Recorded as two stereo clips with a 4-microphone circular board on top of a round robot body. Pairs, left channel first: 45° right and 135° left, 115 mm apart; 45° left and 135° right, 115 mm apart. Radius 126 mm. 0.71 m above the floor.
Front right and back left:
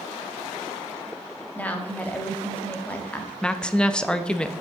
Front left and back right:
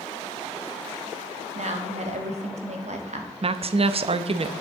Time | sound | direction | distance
1.6 | a woman speaking | 120° right | 1.2 m
3.4 | a woman speaking | 125° right | 0.6 m